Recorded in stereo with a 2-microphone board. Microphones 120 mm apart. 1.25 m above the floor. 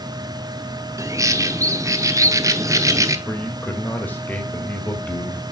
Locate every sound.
1.0 s a bird: 30° right (ahead or behind), 0.7 m
3.3 s a man speaking: 15° left (ahead or behind), 1.9 m